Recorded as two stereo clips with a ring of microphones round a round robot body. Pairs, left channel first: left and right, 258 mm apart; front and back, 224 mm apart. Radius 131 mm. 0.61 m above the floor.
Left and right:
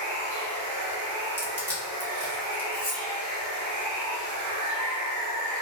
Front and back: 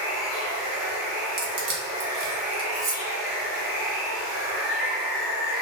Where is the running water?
110° right, 1.4 m.